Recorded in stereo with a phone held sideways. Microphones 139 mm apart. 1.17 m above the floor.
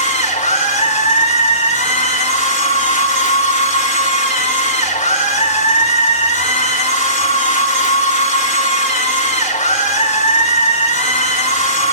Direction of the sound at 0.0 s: 60° left (ahead or behind).